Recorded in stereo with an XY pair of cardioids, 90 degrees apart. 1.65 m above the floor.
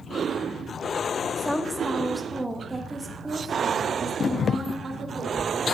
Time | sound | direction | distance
1.4 | a woman speaking | 10° left | 1.9 m